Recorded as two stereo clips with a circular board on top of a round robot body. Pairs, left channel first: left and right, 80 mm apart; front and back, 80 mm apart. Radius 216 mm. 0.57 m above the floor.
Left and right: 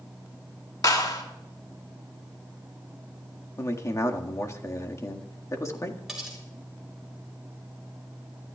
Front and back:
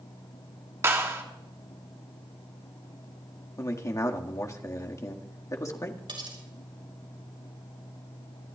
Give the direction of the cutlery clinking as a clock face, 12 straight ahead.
6 o'clock.